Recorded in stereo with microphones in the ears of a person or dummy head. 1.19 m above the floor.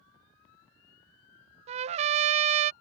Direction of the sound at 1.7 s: 35° right (ahead or behind).